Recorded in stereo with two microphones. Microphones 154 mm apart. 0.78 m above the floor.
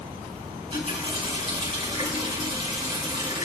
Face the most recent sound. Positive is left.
turn(degrees=-35)  # may be behind; listen again after turning